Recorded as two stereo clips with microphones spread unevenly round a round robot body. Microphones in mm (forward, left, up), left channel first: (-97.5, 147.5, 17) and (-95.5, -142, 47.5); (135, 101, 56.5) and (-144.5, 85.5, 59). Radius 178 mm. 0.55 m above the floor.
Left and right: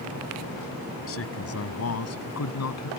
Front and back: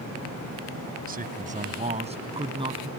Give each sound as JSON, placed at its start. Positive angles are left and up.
{"t": 1.1, "sound": "a man speaking", "azimuth_deg": 125}